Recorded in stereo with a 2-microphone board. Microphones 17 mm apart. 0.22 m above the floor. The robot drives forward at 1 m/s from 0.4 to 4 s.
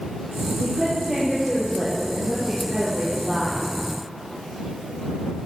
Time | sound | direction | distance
0.6 | a woman speaking | 40° right (ahead or behind) | 7 m